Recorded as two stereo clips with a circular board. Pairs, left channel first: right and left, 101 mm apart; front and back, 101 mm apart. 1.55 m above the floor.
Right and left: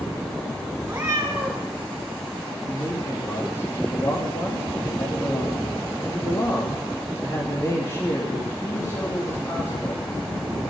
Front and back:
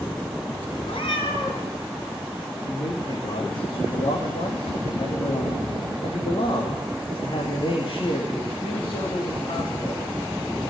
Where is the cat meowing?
20° left, 3.5 m.